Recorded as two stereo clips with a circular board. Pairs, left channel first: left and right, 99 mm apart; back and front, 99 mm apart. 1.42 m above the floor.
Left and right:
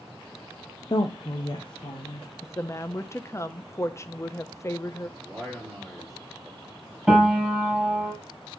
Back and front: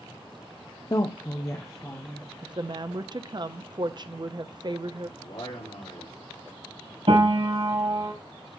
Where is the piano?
5° right, 4.5 m.